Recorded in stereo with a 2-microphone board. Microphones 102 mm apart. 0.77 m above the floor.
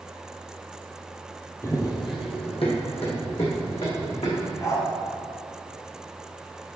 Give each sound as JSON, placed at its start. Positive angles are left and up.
{"t": 1.6, "sound": "running footsteps", "side_deg": 30, "distance_m": 1.4}
{"t": 4.6, "sound": "a dog barking", "side_deg": 35, "distance_m": 2.0}